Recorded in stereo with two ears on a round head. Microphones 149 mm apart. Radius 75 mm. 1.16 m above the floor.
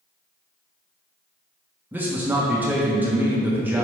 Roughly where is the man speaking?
Centre.